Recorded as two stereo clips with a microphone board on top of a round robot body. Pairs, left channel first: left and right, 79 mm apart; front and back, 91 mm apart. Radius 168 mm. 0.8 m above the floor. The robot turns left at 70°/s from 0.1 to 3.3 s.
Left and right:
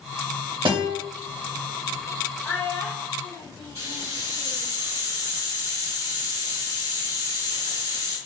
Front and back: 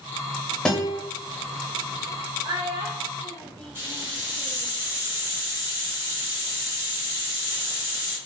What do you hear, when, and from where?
0.7 s a guitar: 85° right, 0.8 m; by 1.0 s 110° right, 0.8 m
2.4 s a child speaking: 160° left, 0.6 m; by 4.8 s 100° left, 0.6 m
3.8 s a hiss: 115° right, 2.0 m